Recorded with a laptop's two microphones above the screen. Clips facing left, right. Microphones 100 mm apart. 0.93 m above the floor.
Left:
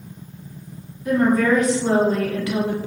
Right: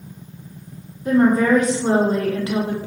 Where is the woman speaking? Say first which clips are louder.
Right 2 dB; 30° right (ahead or behind), 1.3 m.